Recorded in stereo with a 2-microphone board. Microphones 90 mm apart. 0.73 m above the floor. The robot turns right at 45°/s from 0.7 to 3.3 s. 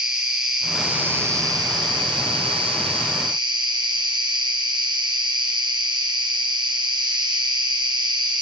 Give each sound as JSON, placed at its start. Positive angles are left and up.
{"t": 0.0, "sound": "an insect", "azimuth_deg": -175, "distance_m": 2.0}